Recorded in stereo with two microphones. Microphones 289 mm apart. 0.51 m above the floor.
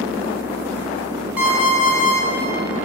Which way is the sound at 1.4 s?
5° right (ahead or behind).